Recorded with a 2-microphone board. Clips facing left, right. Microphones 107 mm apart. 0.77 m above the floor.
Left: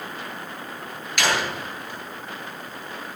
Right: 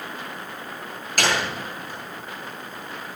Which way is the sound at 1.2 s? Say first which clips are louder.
Even; 45° right (ahead or behind).